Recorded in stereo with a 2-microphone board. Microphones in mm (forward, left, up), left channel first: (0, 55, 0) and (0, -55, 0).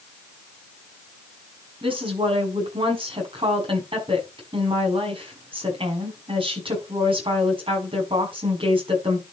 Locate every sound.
1.8 s a woman speaking: 55° right (ahead or behind), 6 m